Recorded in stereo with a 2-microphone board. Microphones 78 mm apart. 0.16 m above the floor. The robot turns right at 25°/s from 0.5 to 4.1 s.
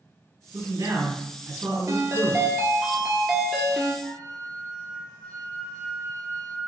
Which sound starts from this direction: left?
A flute, at 4.0 s.